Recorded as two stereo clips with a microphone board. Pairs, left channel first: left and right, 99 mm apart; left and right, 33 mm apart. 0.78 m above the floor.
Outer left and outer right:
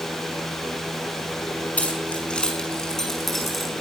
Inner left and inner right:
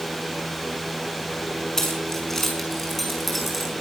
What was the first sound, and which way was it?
Keys jangling, 15° left (ahead or behind).